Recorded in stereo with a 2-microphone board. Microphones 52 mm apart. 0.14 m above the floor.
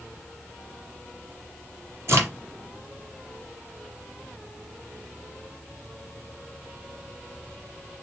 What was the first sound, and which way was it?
A crack, 60° right (ahead or behind).